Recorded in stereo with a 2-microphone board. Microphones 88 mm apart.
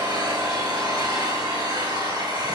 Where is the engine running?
55° right (ahead or behind), 6 m.